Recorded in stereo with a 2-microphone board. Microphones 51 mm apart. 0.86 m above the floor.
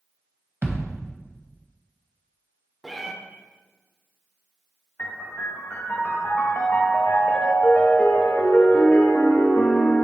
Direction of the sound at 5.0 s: 45° left (ahead or behind).